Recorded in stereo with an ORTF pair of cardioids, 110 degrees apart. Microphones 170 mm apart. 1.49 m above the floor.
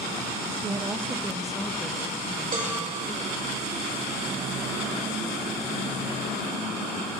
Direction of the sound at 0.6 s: 30° right.